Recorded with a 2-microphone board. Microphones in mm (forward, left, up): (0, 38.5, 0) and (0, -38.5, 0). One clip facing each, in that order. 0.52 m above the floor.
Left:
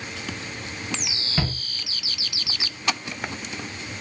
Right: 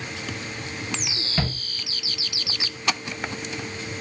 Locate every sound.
1.4 s a shout: 5° left (ahead or behind), 0.8 m